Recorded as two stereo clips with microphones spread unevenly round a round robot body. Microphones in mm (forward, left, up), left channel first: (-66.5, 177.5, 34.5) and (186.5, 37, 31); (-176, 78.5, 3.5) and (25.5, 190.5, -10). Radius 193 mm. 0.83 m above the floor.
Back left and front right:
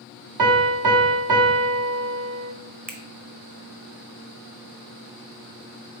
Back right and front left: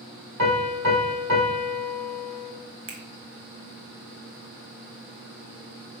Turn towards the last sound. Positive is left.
turn(degrees=30)